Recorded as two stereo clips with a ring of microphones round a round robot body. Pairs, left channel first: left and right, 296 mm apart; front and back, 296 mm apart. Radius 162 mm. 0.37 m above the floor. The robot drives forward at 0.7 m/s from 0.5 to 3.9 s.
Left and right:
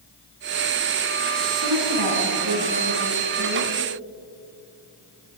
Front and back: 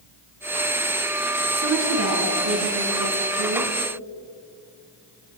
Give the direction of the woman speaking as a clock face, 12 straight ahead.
4 o'clock.